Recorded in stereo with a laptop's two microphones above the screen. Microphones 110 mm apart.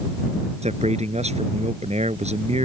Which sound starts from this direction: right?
A man speaking, at 0.6 s.